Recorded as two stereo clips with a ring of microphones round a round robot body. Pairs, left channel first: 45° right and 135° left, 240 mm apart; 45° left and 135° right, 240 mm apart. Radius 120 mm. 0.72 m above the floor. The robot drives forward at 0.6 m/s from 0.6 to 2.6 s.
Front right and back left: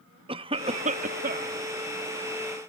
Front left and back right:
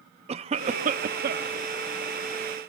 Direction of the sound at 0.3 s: 175° right.